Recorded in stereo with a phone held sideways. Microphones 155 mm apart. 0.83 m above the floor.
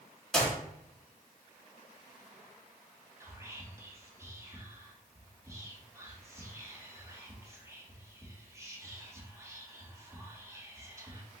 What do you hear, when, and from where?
0.3 s a clap: 5° left (ahead or behind), 1.7 m
3.2 s whispering: 20° right (ahead or behind), 1.1 m